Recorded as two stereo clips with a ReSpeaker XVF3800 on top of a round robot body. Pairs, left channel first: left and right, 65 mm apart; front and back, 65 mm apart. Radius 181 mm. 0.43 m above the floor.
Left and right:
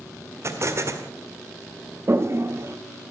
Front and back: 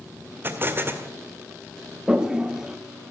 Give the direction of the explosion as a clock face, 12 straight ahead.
4 o'clock.